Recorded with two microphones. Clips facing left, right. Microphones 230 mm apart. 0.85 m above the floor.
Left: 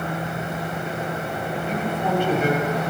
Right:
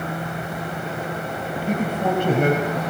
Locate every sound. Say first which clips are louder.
1.7 s a man speaking: right 3 dB; 50° right (ahead or behind), 4 m; by 2.8 s 60° right (ahead or behind), 4 m